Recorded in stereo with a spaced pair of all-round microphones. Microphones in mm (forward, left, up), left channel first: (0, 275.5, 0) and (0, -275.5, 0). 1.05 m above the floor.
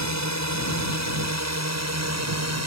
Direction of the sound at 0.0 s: 30° right (ahead or behind).